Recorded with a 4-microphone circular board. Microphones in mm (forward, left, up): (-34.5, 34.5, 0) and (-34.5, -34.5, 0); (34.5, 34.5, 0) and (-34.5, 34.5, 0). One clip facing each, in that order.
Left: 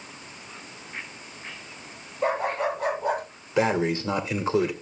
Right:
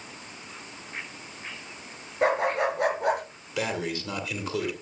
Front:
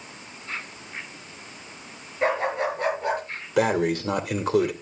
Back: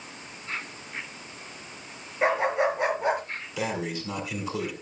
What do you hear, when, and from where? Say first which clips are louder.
2.2 s a dog barking: right 1 dB, back 1 dB; 100° right, 5 m; by 3.2 s 110° right, 5.5 m
3.6 s breathing: left 7 dB, front 9 dB; 30° left, 2.0 m